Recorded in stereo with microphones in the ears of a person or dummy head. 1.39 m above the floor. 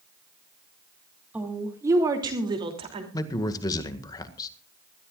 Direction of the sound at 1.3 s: 10° right (ahead or behind).